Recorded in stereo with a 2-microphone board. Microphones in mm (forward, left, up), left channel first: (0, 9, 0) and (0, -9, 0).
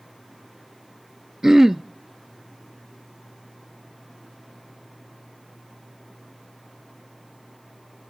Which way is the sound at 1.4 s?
25° right (ahead or behind).